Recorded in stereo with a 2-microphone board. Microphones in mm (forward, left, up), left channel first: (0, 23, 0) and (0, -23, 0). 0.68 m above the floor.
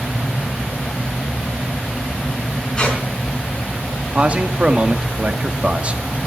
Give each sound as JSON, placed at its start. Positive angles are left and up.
{"t": 2.8, "sound": "a squeak", "side_deg": 15, "distance_m": 4.5}
{"t": 4.1, "sound": "a man speaking", "side_deg": -30, "distance_m": 1.2}